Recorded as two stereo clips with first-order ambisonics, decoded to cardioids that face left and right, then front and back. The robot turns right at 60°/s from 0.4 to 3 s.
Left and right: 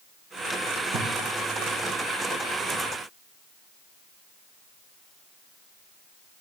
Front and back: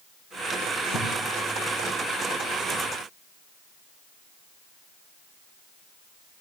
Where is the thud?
35° right, 7 m; by 1.1 s 25° right, 7 m.